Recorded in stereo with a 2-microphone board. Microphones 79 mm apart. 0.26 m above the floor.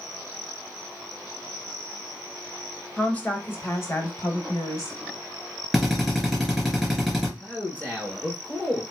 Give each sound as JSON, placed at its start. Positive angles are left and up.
{"t": 3.0, "sound": "a woman speaking", "side_deg": 15, "distance_m": 0.9}
{"t": 5.7, "sound": "a drill", "side_deg": 5, "distance_m": 3.5}
{"t": 7.4, "sound": "a man speaking", "side_deg": 20, "distance_m": 3.0}